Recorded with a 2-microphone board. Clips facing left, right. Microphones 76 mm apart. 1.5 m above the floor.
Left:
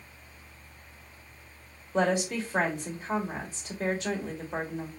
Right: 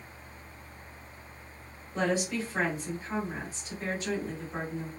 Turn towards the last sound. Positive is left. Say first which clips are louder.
# left 3 dB
turn(degrees=80)